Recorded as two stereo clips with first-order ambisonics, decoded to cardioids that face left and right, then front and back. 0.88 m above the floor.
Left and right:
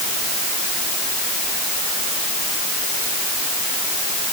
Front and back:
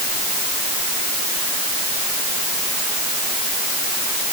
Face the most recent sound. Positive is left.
No sound to turn to.